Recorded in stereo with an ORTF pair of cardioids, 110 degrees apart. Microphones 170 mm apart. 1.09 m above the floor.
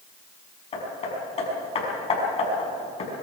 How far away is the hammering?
About 6 m.